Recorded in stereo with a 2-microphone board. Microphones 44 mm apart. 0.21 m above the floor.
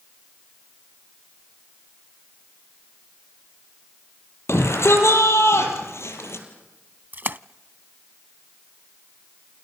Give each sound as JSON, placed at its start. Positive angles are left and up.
{"t": 4.5, "sound": "a shout", "side_deg": 80, "distance_m": 7.0}
{"t": 7.1, "sound": "a splash", "side_deg": -45, "distance_m": 0.5}